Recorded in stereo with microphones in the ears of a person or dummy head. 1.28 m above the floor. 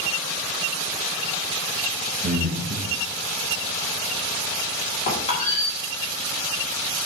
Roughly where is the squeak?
Left.